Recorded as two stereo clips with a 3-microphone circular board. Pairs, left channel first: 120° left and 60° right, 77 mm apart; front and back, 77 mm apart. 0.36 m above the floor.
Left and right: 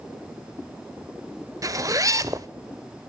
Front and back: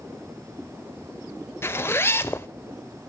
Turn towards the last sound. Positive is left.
turn(degrees=-45)